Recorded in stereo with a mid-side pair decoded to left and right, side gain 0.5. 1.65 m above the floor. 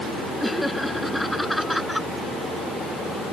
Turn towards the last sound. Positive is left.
turn(degrees=0)